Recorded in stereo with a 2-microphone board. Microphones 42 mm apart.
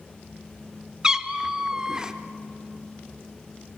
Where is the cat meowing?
20° right (ahead or behind), 1.0 m.